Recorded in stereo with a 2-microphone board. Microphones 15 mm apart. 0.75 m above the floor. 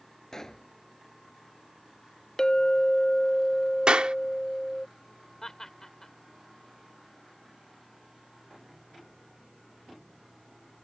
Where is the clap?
75° right (ahead or behind).